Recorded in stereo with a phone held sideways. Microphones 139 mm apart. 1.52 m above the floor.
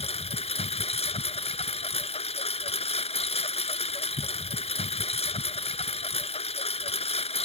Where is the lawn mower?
45° left (ahead or behind).